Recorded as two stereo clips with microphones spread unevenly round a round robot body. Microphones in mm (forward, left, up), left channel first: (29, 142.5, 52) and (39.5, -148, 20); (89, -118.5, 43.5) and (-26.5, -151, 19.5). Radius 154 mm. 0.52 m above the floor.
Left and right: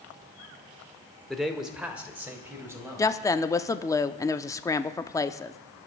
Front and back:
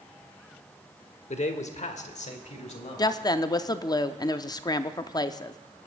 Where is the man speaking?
Straight ahead, 1.6 m; by 3.1 s 10° right, 4 m.